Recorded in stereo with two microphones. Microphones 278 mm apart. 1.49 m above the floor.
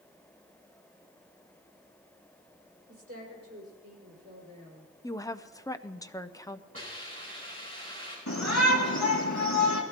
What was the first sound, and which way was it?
A woman speaking, 65° right (ahead or behind).